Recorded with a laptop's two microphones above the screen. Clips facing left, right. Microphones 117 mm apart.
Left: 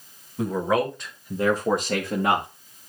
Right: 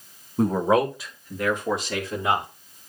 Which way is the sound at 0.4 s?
40° right (ahead or behind).